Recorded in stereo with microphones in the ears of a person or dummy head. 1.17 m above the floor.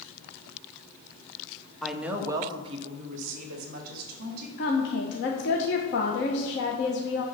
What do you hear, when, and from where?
1.8 s a woman speaking: centre (ahead or behind), 0.9 m; by 4.5 s 60° right (ahead or behind), 2 m
4.6 s a woman speaking: 55° left (ahead or behind), 1.1 m